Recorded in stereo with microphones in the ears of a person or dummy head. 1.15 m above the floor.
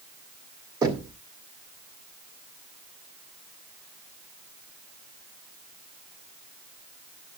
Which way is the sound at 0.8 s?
20° right (ahead or behind).